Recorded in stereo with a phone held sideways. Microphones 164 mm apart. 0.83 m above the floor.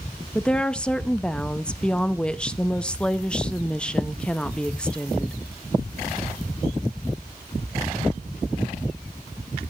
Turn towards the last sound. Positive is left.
turn(degrees=5)  # may be behind; listen again after turning